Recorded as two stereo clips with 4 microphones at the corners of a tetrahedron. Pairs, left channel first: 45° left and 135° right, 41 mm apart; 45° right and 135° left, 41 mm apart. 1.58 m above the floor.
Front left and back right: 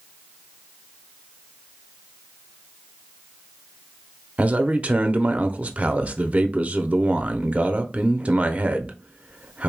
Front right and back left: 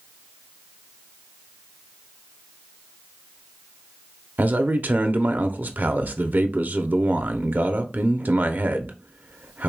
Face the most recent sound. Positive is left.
turn(degrees=170)